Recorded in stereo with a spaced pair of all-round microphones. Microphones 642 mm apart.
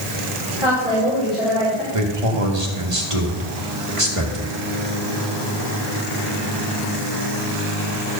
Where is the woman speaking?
45° left (ahead or behind), 5.5 m; by 1.8 s 35° left (ahead or behind), 4.5 m.